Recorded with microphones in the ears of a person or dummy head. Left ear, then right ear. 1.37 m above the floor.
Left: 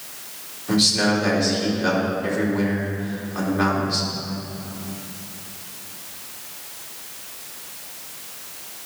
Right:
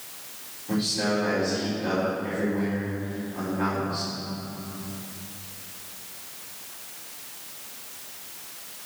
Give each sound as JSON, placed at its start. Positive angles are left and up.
{"t": 0.7, "sound": "a man speaking", "side_deg": 45, "distance_m": 4.5}